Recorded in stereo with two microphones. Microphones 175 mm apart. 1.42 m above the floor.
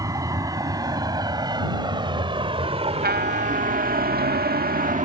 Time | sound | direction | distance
0.0 | a vehicle | 20° right (ahead or behind) | ?
3.0 | a trumpet | 65° right (ahead or behind) | ?